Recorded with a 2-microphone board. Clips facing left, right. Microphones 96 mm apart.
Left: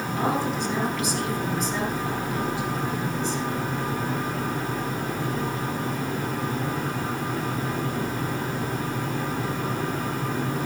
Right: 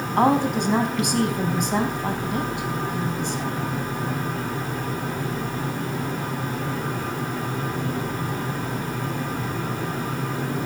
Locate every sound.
0.2 s a woman speaking: 65° right (ahead or behind), 4 m